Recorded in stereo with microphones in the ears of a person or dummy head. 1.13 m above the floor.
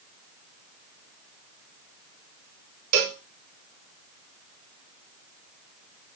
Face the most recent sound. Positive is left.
turn(degrees=-55)  # may be behind; listen again after turning